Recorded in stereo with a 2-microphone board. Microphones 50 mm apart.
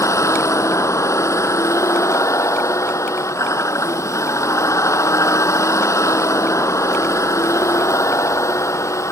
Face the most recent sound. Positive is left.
turn(degrees=85)